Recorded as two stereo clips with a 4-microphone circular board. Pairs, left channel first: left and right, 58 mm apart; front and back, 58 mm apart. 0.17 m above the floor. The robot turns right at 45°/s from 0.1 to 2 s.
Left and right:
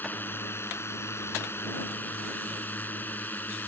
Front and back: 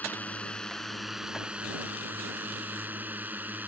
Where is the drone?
50° left; by 3.7 s 135° left.